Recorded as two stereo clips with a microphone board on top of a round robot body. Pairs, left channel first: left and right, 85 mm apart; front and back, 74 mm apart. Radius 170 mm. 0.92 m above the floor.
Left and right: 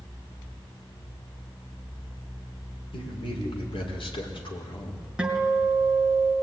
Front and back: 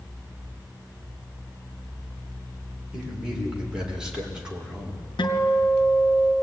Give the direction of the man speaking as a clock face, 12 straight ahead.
9 o'clock.